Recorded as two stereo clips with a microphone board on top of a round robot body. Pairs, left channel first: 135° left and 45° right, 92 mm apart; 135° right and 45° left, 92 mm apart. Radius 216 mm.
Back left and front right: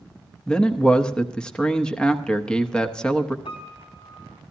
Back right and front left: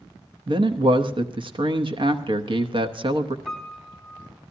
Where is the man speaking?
55° left, 1.2 m.